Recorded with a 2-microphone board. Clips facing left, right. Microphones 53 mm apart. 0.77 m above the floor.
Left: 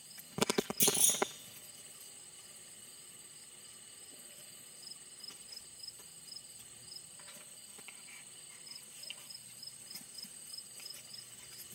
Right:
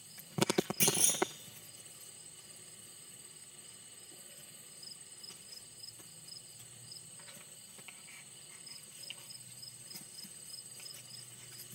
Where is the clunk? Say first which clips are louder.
Right 1 dB; 50° right (ahead or behind), 3 m.